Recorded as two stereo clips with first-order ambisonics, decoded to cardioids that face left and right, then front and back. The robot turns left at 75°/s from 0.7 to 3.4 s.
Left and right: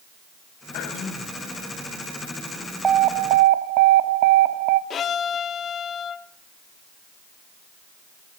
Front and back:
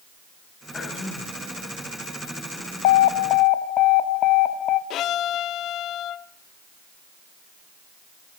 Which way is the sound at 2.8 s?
15° right.